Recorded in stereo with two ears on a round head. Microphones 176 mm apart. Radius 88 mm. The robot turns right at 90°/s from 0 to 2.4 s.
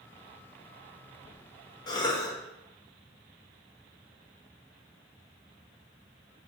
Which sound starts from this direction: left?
A cough, at 1.9 s.